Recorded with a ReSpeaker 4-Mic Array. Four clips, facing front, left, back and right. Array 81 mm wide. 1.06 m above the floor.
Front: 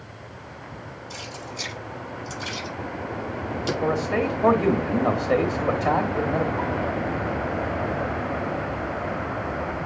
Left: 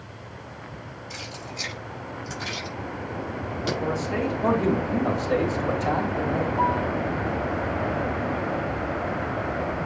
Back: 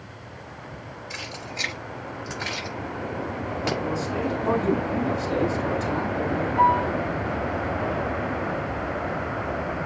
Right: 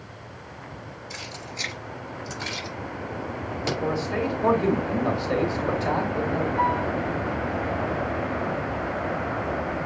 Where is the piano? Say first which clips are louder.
Even, back 7 dB; 155° right, 3 m.